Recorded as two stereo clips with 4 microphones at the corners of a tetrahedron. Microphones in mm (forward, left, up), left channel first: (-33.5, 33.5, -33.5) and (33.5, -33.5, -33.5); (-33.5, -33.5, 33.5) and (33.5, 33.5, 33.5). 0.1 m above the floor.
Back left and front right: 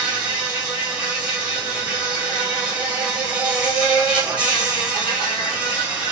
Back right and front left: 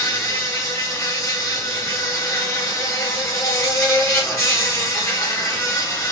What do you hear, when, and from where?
0.0 s an insect: 110° right, 2 m